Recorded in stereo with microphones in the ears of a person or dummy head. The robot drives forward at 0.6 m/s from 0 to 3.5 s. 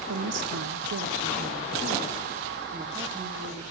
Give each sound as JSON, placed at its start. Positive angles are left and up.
{"t": 0.1, "sound": "a woman speaking", "side_deg": -80, "distance_m": 1.1}